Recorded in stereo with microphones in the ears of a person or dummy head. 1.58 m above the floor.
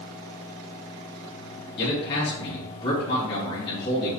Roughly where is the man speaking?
Left.